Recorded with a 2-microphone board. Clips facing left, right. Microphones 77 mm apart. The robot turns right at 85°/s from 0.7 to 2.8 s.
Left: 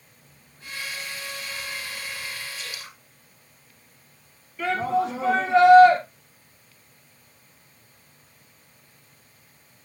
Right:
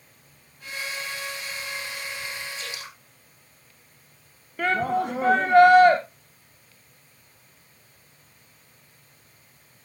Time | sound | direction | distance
0.2 | whispering | 35° left | 2 m
2.6 | dripping | 35° right (ahead or behind) | 6.5 m
4.6 | a shout | 55° right (ahead or behind) | 3 m